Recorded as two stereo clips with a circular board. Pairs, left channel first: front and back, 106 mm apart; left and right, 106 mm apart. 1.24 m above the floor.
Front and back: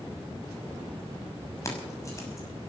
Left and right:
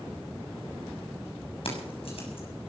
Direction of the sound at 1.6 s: 60° left.